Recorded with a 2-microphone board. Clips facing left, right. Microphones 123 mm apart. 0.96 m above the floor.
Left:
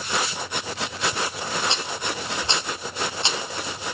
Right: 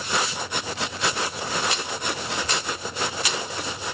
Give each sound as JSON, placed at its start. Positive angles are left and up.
{"t": 1.7, "sound": "a rattle", "side_deg": 25, "distance_m": 1.0}